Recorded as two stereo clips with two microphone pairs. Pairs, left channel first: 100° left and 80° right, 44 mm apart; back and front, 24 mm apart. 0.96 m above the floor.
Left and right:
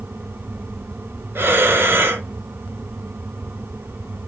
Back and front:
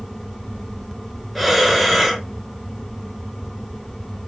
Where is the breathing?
90° right, 1.2 m.